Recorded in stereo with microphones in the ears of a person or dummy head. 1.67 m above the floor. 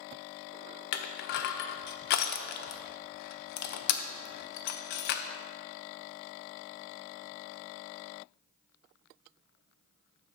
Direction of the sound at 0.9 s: 55° left (ahead or behind).